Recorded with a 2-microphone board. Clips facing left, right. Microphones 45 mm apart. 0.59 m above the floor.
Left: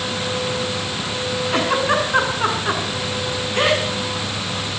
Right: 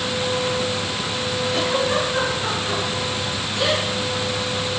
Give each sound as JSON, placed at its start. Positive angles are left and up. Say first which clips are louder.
{"t": 1.5, "sound": "a giggle", "louder": "left 3 dB", "side_deg": 50, "distance_m": 6.0}